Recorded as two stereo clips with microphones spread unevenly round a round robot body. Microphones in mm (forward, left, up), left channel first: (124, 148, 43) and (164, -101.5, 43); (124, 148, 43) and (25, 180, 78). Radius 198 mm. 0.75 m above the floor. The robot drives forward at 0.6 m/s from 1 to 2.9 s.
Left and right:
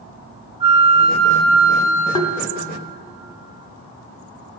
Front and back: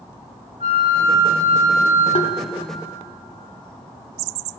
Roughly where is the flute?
Behind right.